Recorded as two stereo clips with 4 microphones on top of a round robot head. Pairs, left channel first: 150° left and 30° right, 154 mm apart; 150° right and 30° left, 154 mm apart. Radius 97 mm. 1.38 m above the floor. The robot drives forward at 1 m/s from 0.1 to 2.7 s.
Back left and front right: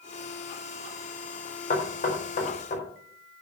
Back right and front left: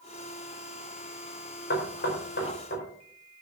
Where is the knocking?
170° right, 4 m.